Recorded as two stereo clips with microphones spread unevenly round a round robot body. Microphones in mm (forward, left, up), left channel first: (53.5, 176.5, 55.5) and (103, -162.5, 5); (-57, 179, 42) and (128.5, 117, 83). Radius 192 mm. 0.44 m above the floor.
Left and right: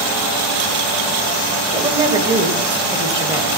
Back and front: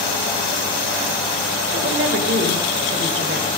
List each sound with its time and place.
1.7 s a woman speaking: 10° right, 2.5 m